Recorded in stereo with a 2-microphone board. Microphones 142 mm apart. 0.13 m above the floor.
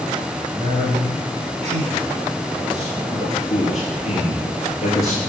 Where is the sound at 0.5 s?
50° right (ahead or behind), 2.0 m.